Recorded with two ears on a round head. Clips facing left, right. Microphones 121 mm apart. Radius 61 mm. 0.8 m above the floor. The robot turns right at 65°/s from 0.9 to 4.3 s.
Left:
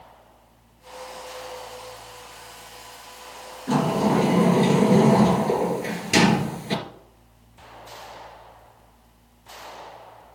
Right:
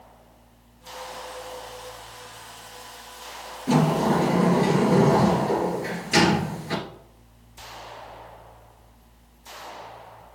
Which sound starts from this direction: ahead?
A sliding door, at 3.7 s.